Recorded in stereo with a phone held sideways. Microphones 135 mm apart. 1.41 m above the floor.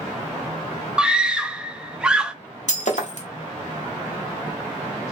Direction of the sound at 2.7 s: 65° left (ahead or behind).